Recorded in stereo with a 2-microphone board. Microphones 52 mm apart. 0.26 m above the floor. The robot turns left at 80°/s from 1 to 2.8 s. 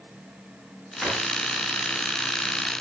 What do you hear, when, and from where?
1.0 s a drawer: centre (ahead or behind), 9.5 m; by 1.2 s 15° left (ahead or behind), 9.5 m